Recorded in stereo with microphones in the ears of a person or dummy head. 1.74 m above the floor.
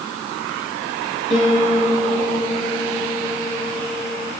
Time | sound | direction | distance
1.3 | a piano | centre (ahead or behind) | 7.5 m